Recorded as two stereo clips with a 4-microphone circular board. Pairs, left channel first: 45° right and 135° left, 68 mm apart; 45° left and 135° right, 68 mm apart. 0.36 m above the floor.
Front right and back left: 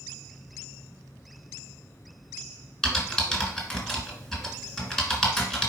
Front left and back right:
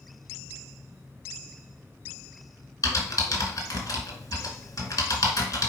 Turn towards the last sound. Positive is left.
turn(degrees=30)